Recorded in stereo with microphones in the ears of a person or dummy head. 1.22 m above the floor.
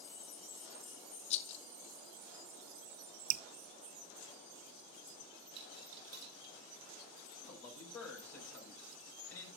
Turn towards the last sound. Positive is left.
turn(degrees=15)  # may be behind; listen again after turning